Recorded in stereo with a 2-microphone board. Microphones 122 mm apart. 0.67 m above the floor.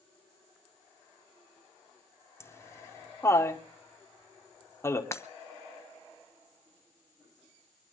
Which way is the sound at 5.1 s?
25° left (ahead or behind).